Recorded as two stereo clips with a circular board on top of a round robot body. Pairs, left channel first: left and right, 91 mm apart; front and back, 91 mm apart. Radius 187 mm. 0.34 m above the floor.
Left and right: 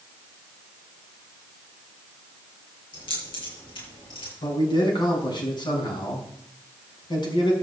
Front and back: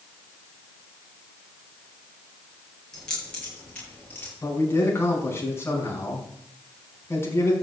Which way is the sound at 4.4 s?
60° left.